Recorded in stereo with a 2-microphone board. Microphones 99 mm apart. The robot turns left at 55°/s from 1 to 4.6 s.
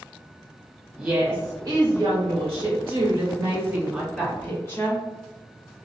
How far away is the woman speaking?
About 1.7 m.